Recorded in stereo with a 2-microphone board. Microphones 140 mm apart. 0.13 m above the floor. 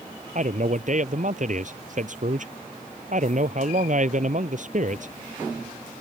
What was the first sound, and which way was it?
A man speaking, 55° right (ahead or behind).